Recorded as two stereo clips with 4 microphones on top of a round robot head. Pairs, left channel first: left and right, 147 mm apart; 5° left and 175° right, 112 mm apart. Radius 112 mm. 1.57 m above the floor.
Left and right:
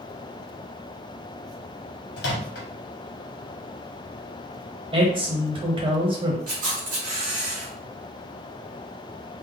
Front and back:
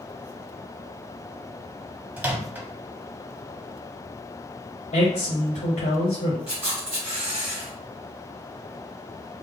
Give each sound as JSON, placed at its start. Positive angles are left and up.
{"t": 2.2, "sound": "a microwave", "azimuth_deg": 110, "distance_m": 0.7}
{"t": 4.9, "sound": "a woman speaking", "azimuth_deg": -30, "distance_m": 0.9}
{"t": 6.5, "sound": "a camera shutter", "azimuth_deg": -95, "distance_m": 1.5}